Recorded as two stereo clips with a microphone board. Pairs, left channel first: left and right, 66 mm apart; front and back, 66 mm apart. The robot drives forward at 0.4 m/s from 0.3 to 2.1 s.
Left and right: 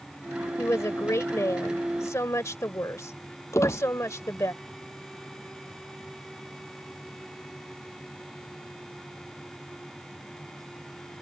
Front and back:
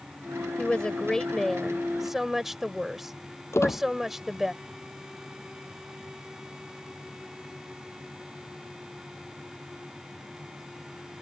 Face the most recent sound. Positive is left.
turn(degrees=45)